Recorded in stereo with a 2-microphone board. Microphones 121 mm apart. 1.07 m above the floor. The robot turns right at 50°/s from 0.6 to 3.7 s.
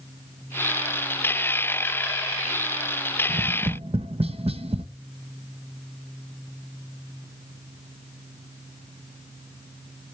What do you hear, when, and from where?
3.3 s tapping: 70° right (ahead or behind), 0.9 m; by 4.8 s 55° right (ahead or behind), 0.9 m